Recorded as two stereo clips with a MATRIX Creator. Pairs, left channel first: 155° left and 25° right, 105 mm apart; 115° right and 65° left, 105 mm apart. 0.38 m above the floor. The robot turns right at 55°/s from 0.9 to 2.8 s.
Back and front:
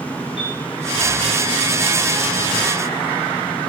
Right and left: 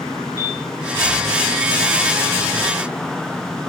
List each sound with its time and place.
0.4 s a piano: 135° left, 8.5 m